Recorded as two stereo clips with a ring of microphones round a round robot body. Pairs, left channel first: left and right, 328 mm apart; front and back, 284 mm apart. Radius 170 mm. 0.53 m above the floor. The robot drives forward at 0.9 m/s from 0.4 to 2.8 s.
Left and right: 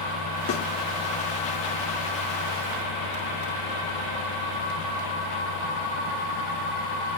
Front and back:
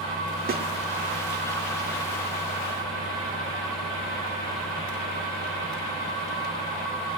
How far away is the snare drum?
About 1.7 m.